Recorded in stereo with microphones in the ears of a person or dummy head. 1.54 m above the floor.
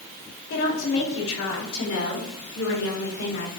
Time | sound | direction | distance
0.5 | a woman speaking | 75° left (ahead or behind) | 4.5 m